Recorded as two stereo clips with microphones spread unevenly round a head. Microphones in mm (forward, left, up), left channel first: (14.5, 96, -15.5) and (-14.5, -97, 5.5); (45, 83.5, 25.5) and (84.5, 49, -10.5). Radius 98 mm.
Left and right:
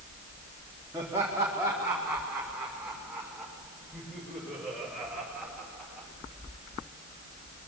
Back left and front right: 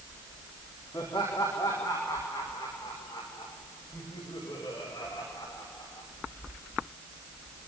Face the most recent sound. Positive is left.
turn(degrees=170)